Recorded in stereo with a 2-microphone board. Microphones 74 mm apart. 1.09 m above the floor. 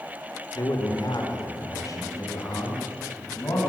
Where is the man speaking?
60° left (ahead or behind), 2.5 m; by 3.7 s 40° left (ahead or behind), 7 m.